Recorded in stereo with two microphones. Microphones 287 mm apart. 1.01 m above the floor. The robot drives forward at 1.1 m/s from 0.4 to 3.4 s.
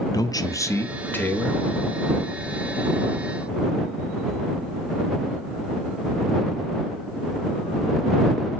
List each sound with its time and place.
0.1 s a man speaking: 15° left (ahead or behind), 0.7 m; by 1.6 s 5° left (ahead or behind), 1.8 m